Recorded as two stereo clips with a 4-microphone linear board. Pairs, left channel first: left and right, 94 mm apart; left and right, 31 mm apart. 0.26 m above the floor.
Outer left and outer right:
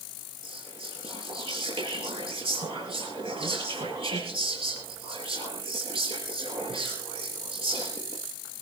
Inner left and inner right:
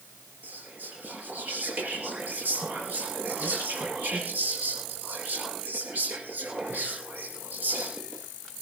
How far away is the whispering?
About 5.5 m.